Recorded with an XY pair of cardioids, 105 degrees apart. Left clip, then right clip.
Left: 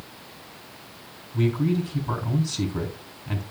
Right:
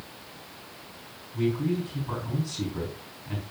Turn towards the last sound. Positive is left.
turn(degrees=45)